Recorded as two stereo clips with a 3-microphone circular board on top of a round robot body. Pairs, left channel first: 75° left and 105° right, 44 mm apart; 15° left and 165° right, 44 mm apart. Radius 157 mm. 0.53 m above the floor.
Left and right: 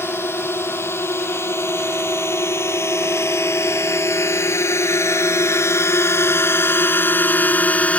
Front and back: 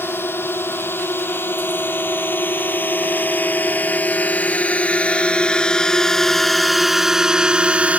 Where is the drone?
50° left; by 8.0 s 135° left.